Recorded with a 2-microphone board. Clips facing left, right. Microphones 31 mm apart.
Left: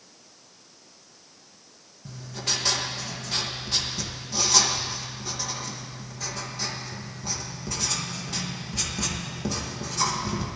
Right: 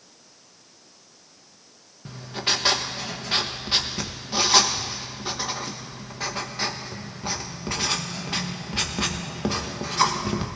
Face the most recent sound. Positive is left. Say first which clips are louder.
# right 5 dB
turn(degrees=-35)  # may be behind; listen again after turning